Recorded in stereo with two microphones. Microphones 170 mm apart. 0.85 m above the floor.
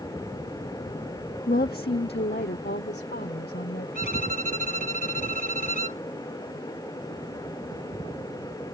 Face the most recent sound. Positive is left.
turn(degrees=50)  # may be behind; listen again after turning